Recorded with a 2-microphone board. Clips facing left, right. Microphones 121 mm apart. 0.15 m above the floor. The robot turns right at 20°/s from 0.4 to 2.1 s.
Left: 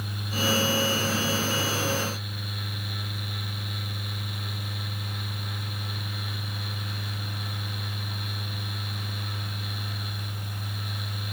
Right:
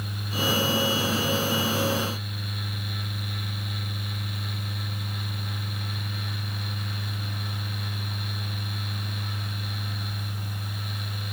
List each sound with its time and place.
Only background noise.